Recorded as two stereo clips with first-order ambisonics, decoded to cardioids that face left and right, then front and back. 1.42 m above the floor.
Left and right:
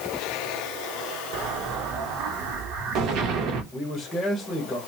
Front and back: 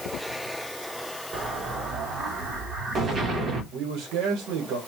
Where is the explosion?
115° right, 1.1 m.